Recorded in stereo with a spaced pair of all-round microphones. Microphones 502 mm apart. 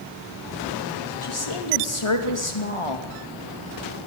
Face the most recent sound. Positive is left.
turn(degrees=75)  # may be behind; listen again after turning